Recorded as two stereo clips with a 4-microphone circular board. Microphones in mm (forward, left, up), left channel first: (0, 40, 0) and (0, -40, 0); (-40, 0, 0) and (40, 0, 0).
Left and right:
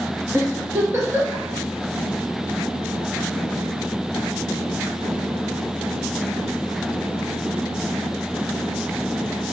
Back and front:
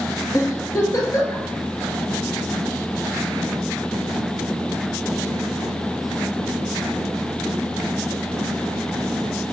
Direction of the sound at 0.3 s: 140° right.